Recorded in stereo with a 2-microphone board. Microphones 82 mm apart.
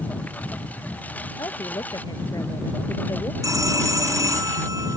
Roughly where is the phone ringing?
Right.